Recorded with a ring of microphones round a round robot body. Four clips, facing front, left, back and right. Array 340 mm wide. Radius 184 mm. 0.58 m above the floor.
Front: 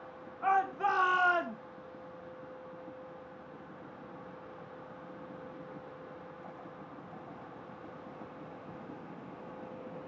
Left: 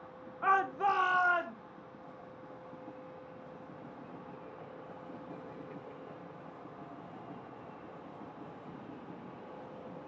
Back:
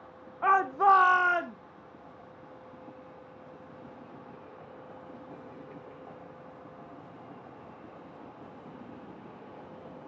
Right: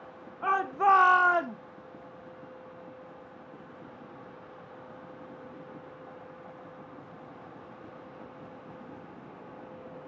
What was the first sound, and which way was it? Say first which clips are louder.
A shout: right 4 dB, back 6 dB; 170° right.